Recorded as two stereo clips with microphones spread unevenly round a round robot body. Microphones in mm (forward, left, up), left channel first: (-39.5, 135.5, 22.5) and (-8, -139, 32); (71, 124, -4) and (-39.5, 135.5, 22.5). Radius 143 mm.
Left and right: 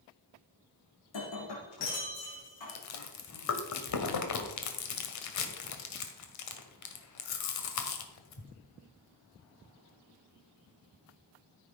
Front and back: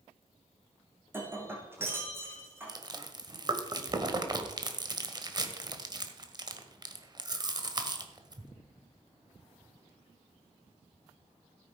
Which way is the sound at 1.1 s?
105° left.